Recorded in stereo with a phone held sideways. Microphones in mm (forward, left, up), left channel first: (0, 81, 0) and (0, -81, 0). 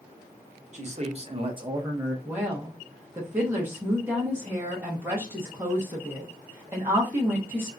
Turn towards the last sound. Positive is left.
turn(degrees=-15)  # may be behind; listen again after turning